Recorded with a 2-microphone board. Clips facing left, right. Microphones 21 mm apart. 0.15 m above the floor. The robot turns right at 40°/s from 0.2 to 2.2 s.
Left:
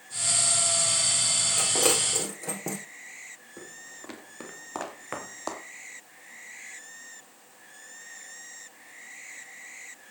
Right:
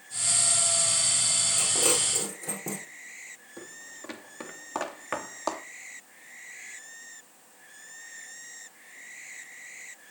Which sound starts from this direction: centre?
Footsteps, at 3.6 s.